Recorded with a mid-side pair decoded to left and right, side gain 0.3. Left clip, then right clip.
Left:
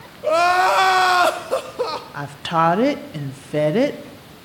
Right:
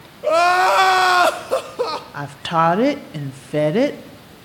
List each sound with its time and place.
0.2 s crying: 25° right, 0.8 m
2.1 s a woman speaking: 15° right, 0.7 m